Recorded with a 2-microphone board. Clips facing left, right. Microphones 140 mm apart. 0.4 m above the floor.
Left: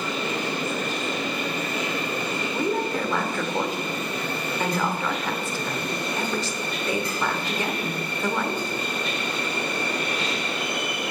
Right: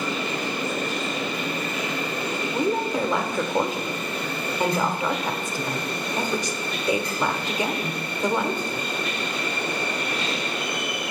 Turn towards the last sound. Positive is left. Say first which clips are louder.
# right 2 dB
turn(degrees=-15)  # may be behind; listen again after turning